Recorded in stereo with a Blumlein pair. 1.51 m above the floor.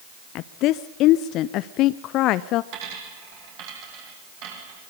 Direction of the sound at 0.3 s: 40° left.